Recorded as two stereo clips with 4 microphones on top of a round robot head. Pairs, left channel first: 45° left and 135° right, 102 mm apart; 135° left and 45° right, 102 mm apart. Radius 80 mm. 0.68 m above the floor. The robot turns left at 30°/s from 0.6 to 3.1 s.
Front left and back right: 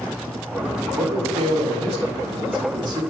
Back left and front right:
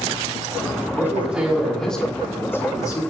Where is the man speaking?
115° right, 3 m; by 3.0 s 175° right, 3 m.